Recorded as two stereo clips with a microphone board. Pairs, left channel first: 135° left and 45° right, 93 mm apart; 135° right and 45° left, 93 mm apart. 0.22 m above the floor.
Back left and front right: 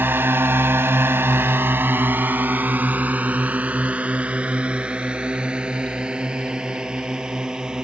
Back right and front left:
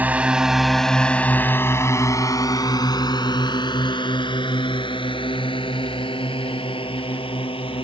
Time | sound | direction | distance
0.0 | a drone | 5° right | ?